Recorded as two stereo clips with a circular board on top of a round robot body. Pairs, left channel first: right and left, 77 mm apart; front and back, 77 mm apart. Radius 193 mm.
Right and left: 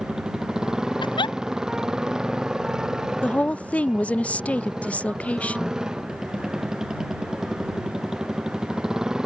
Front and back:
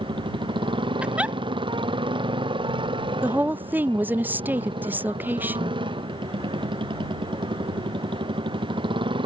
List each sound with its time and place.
0.0 s a motorcycle: 170° left
1.0 s a giggle: 105° right
3.2 s a woman speaking: 145° right